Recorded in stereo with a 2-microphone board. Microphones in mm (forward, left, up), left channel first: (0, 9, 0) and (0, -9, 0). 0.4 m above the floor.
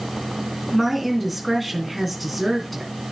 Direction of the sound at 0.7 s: 5° right (ahead or behind).